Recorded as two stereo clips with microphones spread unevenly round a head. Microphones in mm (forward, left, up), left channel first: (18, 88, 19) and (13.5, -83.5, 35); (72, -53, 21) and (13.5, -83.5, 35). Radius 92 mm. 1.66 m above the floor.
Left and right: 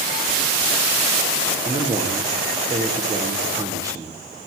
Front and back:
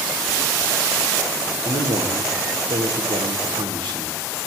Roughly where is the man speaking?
Behind.